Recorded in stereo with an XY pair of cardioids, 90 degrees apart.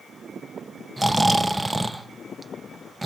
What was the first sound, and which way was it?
Snoring, 15° right.